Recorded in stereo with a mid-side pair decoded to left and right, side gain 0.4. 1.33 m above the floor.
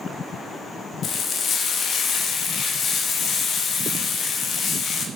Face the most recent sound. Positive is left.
turn(degrees=60)